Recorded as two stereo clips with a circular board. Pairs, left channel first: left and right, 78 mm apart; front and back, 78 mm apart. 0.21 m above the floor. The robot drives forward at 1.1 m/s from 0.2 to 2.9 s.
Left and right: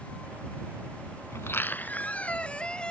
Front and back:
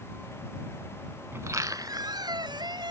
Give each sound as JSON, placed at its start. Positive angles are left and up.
{"t": 1.3, "sound": "a squeak", "azimuth_deg": 130}